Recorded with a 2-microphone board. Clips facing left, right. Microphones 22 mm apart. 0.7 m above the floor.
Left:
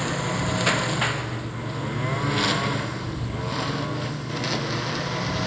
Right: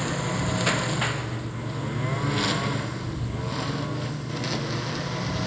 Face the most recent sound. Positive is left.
turn(degrees=15)  # may be behind; listen again after turning